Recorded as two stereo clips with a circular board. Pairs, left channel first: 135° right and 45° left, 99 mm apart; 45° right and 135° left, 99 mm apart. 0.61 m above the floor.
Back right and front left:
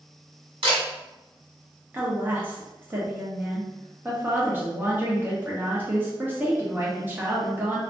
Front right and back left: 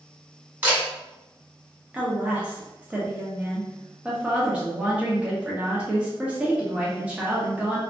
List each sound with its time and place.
0.6 s a camera shutter: 65° left, 1.4 m
1.9 s a woman speaking: 75° left, 0.7 m